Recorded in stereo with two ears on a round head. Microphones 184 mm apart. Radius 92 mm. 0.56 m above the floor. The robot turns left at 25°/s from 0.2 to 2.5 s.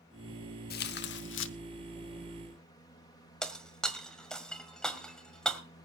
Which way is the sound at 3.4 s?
5° left (ahead or behind).